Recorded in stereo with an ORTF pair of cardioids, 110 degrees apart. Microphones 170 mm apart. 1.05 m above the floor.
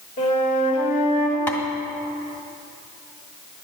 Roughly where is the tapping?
Ahead.